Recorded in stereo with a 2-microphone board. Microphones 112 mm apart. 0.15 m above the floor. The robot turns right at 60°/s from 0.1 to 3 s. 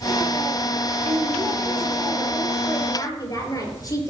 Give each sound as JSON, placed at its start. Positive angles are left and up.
{"t": 1.1, "sound": "a woman speaking", "azimuth_deg": -80, "distance_m": 4.0}